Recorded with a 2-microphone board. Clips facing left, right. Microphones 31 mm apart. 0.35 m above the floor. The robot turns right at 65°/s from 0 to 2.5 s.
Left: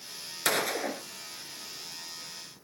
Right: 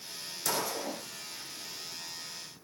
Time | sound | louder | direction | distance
0.5 | a gunshot | left 5 dB | 55° left | 1.7 m